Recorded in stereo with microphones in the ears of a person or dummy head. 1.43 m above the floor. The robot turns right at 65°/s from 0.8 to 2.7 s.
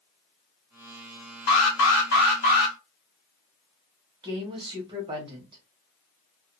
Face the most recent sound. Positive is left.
turn(degrees=-30)  # may be behind; listen again after turning